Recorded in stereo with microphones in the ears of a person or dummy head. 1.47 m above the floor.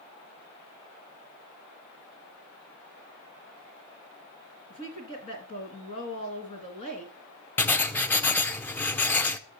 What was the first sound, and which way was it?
A woman speaking, 40° left (ahead or behind).